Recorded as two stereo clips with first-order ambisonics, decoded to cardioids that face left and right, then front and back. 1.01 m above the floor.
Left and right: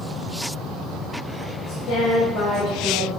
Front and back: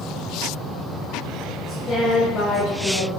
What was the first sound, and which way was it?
A woman speaking, 80° left.